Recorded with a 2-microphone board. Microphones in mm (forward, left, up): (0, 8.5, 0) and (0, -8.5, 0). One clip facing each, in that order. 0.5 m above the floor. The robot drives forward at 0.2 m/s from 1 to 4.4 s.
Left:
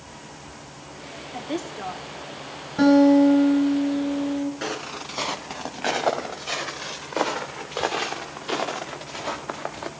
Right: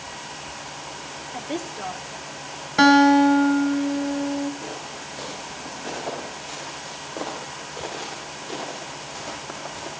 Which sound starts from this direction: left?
Footsteps, at 4.6 s.